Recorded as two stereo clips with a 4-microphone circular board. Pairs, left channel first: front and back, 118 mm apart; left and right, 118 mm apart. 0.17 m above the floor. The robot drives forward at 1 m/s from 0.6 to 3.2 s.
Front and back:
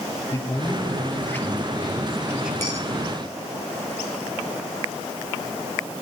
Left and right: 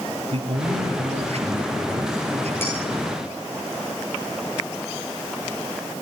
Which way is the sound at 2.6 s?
160° left.